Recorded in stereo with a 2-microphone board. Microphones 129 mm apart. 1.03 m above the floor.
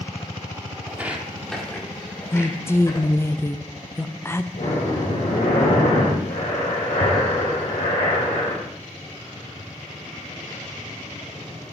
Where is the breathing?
80° left, 3.5 m.